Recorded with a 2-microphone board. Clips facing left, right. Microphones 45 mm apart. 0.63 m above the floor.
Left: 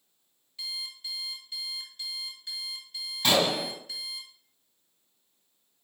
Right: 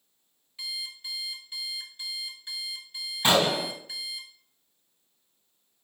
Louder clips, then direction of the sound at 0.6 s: Right 1 dB; 15° right (ahead or behind).